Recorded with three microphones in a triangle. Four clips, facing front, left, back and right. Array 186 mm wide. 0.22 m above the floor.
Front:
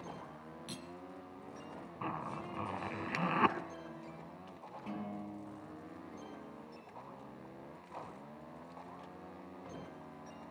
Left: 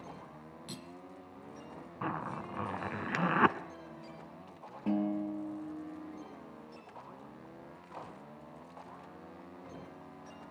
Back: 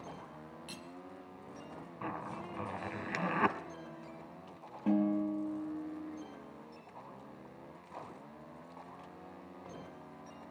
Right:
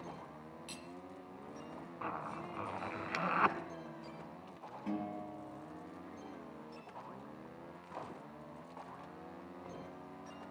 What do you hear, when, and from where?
0.7 s cutlery clinking: 65° left, 1.6 m
2.0 s a zipper: 85° left, 1.5 m
4.9 s a guitar: 140° left, 5.5 m